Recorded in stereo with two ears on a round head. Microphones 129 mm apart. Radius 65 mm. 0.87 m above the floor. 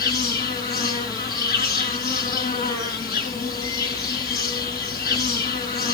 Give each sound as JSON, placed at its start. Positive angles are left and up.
{"t": 0.0, "sound": "an insect", "side_deg": 25, "distance_m": 3.5}